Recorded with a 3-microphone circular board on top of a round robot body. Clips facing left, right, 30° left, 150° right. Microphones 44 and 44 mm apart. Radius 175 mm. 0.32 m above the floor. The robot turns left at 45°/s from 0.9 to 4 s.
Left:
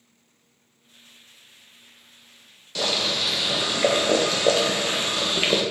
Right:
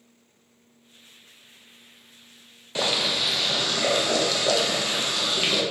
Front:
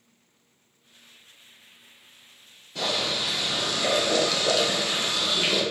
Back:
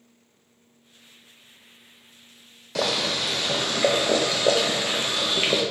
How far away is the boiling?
About 0.5 m.